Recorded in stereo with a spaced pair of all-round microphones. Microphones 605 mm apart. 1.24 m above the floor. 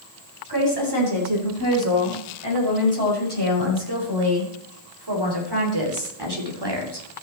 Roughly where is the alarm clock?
I don't hear an alarm clock.